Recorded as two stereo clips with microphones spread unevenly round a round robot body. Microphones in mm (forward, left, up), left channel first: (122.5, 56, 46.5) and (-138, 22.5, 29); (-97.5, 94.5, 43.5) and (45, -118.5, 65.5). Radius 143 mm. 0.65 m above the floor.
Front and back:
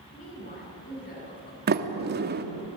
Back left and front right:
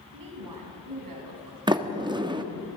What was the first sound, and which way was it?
A woman speaking, 60° right.